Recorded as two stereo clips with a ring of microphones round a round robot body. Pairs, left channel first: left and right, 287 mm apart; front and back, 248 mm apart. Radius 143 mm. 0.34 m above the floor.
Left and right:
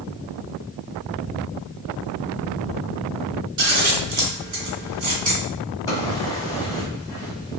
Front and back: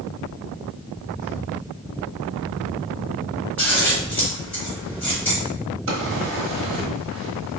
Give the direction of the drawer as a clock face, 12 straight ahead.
6 o'clock.